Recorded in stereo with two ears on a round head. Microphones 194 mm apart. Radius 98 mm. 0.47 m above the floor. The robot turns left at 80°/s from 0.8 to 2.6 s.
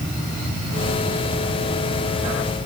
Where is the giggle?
I don't hear a giggle.